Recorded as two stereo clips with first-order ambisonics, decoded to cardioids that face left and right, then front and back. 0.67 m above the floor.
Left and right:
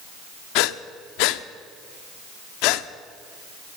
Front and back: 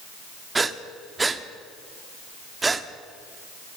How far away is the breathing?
About 0.6 m.